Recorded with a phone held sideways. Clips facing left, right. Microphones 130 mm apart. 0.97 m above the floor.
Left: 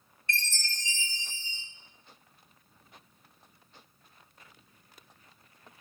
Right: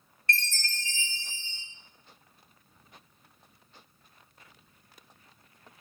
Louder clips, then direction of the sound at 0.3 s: Right 3 dB; 15° left (ahead or behind).